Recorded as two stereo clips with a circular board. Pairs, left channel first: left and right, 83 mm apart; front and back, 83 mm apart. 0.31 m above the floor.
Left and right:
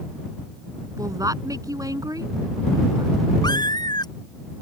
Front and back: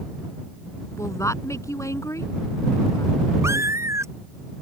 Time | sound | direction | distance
1.0 | a woman speaking | 50° right | ?
3.4 | a cat meowing | 125° left | ?